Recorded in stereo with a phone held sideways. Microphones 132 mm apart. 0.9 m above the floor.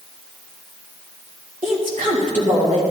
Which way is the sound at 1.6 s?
75° right (ahead or behind).